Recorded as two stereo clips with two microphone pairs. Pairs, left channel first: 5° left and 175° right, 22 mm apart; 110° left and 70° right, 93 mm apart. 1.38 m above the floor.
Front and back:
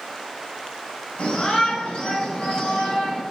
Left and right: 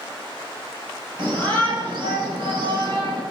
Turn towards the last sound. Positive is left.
turn(degrees=-45)